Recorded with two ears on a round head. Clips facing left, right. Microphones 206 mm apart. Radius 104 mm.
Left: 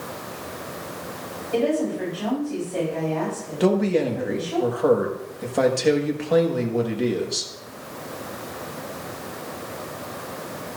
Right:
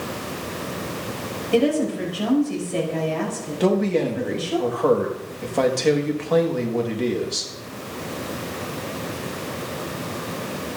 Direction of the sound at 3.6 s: 5° left (ahead or behind).